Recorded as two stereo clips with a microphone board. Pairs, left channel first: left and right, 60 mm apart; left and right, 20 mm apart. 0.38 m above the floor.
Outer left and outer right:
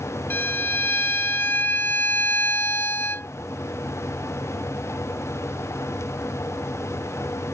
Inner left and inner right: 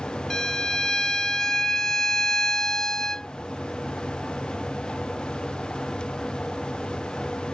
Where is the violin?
35° left (ahead or behind).